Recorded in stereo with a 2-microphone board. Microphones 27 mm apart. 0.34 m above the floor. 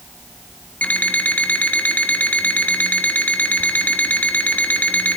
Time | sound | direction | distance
0.8 | an alarm clock | 75° left (ahead or behind) | 1.4 m